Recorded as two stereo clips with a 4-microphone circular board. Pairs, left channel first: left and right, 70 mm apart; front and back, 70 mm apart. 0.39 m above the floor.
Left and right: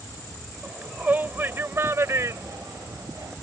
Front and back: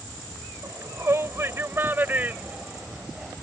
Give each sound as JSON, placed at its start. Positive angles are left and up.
{"t": 0.6, "sound": "a shout", "azimuth_deg": -155}